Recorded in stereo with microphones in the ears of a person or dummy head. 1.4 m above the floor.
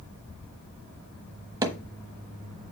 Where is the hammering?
20° right (ahead or behind), 1.3 m.